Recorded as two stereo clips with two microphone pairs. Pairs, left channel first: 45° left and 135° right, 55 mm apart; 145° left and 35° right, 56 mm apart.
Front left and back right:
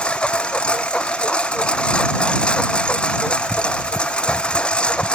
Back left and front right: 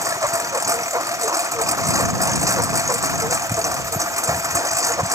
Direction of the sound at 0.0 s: 25° right.